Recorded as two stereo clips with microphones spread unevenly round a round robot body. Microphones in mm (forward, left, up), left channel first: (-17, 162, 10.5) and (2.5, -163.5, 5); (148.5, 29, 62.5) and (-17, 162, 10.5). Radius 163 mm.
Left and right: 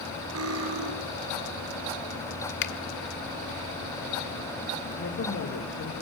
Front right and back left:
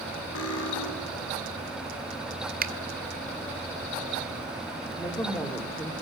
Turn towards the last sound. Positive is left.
turn(degrees=40)